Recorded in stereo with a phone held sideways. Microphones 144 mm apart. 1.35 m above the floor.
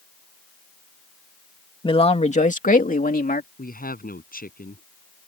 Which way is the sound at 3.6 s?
90° left.